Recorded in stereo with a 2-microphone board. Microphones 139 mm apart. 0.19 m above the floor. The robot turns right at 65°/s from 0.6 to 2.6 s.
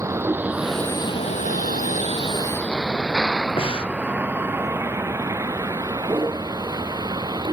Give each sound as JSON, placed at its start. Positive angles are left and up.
{"t": 0.0, "sound": "a vehicle", "side_deg": -20}
{"t": 3.6, "sound": "breathing", "side_deg": 40}